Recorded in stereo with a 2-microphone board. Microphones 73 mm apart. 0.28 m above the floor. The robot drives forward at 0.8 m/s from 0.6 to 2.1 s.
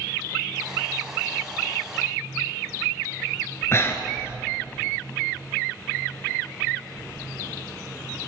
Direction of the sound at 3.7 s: 35° left (ahead or behind).